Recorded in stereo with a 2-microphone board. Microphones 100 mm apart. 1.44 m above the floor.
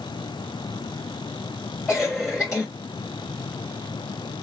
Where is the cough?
Centre (ahead or behind), 1.1 m.